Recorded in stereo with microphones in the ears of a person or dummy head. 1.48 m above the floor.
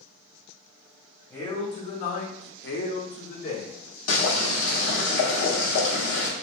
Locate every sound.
1.3 s a man speaking: 10° left (ahead or behind), 1.1 m; by 3.7 s 50° left (ahead or behind), 1.7 m
4.1 s boiling: 50° left (ahead or behind), 1.2 m